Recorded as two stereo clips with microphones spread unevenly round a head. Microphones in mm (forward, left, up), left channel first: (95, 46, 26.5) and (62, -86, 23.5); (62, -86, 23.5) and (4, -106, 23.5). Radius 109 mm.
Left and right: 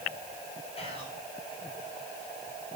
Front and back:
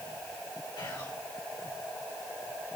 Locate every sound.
0.8 s whispering: 30° left, 7 m